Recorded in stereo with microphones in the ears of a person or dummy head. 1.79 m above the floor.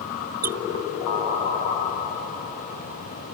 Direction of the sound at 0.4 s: 5° right (ahead or behind).